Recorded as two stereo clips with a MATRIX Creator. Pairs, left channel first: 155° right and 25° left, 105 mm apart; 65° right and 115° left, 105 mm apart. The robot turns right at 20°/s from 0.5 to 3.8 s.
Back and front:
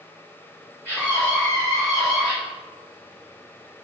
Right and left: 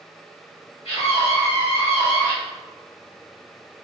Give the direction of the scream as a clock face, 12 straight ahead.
3 o'clock.